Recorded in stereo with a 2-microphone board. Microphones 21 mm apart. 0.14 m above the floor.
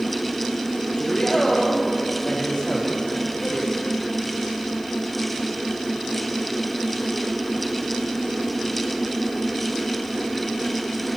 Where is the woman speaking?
30° left (ahead or behind), 4.5 m; by 4.0 s 55° left (ahead or behind), 3.5 m.